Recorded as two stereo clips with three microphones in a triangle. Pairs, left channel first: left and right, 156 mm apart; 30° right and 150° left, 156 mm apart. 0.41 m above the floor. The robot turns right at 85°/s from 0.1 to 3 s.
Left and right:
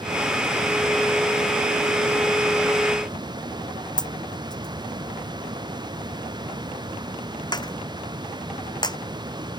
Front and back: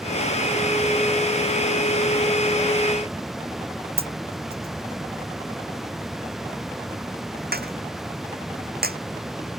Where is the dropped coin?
155° left.